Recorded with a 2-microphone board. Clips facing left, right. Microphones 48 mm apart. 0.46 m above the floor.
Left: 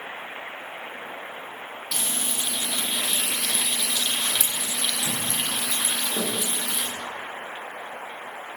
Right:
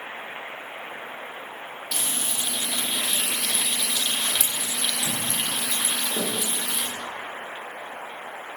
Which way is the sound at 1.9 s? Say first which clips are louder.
Even; centre (ahead or behind).